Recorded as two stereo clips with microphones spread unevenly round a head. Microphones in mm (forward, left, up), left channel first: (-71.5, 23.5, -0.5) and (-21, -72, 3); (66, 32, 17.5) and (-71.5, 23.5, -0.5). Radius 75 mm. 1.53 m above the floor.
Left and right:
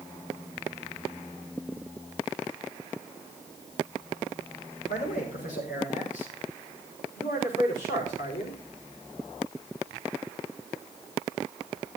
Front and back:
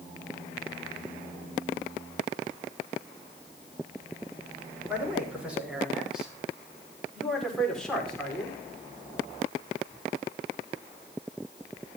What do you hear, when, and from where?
4.9 s a man speaking: 105° left, 6 m; by 8.6 s 85° left, 5 m